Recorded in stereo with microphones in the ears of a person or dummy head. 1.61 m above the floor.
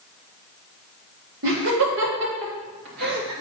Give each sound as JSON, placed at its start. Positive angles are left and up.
{"t": 1.4, "sound": "laughter", "side_deg": -70, "distance_m": 3.0}